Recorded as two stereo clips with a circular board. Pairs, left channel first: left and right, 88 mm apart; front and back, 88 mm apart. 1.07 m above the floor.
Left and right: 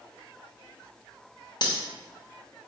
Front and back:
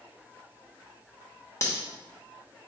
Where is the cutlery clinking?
55° left, 0.8 m.